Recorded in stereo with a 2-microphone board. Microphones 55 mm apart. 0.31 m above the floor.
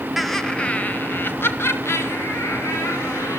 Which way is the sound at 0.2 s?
Centre (ahead or behind).